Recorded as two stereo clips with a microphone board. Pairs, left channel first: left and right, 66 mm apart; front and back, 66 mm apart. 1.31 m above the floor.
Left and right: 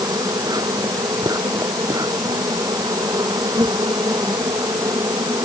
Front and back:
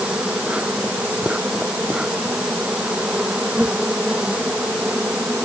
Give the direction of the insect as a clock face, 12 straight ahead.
4 o'clock.